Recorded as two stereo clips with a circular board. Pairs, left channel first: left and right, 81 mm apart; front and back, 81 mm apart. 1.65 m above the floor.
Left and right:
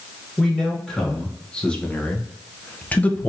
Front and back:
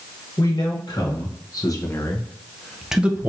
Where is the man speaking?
10° left, 1.4 m; by 3.3 s 145° left, 0.6 m.